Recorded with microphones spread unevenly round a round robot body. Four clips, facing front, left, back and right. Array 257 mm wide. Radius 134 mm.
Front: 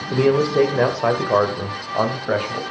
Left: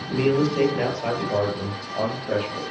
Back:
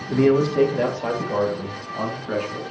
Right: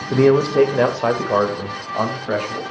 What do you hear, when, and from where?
0.1 s a man speaking: 70° right, 1.9 m; by 2.6 s 20° right, 3 m